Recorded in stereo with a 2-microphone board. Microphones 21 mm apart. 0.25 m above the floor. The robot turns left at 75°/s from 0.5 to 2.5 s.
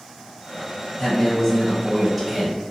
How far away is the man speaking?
About 1.3 m.